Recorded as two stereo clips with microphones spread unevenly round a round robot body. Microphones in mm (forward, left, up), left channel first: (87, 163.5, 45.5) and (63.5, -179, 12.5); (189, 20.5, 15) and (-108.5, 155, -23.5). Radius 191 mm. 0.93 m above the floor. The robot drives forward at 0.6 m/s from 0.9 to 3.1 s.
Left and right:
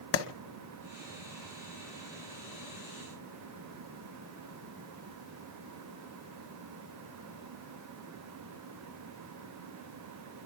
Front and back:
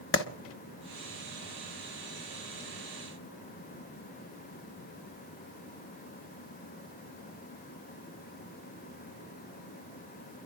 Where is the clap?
30° left, 1.2 m.